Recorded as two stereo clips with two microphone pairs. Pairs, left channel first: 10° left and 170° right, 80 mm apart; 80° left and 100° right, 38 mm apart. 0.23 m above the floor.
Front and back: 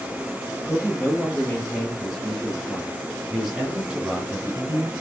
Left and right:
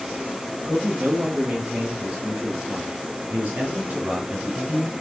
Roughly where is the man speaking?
Ahead right.